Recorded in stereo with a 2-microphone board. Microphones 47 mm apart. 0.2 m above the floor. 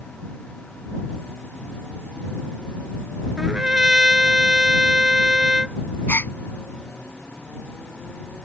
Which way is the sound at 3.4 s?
15° right (ahead or behind).